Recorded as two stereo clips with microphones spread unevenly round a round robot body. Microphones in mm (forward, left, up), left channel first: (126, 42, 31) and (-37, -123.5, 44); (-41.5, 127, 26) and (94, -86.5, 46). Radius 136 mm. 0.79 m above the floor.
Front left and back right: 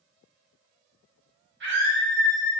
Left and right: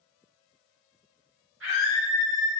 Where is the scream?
100° right, 1.6 m.